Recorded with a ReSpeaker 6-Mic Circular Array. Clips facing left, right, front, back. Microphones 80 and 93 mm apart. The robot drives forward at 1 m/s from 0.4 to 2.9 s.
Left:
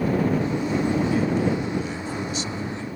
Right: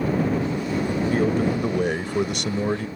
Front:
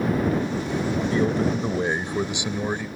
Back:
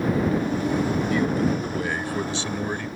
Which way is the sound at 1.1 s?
60° right.